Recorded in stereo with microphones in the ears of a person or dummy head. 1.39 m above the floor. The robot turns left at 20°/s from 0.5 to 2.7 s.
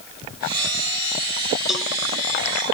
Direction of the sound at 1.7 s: 5° right (ahead or behind).